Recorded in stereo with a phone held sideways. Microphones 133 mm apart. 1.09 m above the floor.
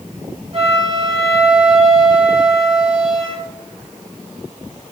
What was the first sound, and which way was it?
A flute, 55° right (ahead or behind).